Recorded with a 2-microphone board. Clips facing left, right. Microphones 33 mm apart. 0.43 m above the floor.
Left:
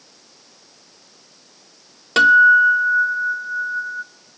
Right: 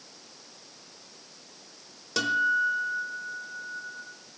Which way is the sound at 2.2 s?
55° left (ahead or behind).